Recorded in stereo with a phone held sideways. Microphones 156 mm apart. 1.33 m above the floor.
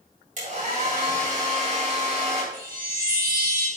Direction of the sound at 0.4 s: 55° right (ahead or behind).